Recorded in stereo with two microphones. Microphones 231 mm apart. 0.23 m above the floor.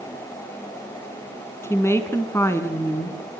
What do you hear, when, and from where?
1.6 s a woman speaking: 10° left (ahead or behind), 2.5 m